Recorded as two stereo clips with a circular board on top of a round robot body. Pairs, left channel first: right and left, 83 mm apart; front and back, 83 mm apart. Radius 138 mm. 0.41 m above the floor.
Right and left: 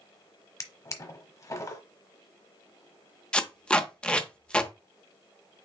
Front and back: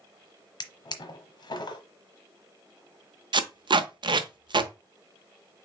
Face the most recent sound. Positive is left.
turn(degrees=-165)